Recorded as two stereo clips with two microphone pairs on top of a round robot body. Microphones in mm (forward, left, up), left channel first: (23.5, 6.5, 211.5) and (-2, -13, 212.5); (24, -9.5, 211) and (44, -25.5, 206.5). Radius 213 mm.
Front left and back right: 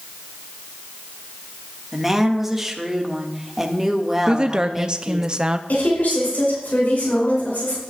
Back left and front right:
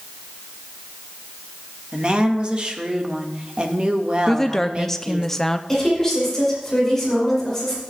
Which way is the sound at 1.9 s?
65° right.